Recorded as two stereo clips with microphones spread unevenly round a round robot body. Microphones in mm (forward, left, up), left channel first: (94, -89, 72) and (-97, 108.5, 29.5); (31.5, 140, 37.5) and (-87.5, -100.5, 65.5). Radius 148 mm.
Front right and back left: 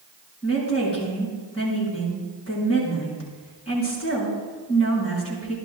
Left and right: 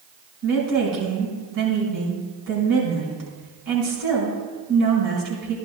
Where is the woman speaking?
115° right, 5.5 m.